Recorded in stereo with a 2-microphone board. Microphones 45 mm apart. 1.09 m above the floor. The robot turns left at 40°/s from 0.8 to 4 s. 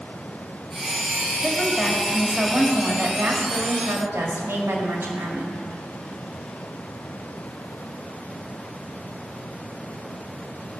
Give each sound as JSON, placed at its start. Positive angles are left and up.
{"t": 1.4, "sound": "a woman speaking", "azimuth_deg": 10, "distance_m": 1.9}